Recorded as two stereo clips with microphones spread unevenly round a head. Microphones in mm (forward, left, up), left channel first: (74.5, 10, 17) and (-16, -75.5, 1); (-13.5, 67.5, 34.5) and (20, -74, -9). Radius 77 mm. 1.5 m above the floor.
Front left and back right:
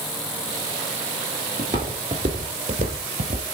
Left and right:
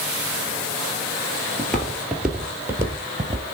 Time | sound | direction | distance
1.6 | footsteps | 160° left | 1.8 m